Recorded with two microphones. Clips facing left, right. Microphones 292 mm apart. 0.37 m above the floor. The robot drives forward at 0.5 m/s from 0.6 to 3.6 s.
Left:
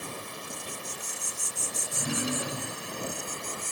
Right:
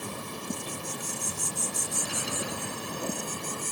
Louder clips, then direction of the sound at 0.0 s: Right 3 dB; 60° right (ahead or behind).